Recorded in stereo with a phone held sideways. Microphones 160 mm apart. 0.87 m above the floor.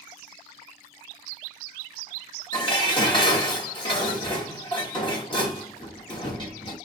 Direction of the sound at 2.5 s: 30° left (ahead or behind).